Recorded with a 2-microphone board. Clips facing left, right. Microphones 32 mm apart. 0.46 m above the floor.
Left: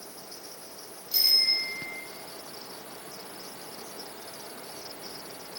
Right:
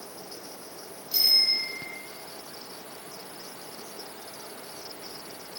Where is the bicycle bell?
5° right (ahead or behind), 9 m.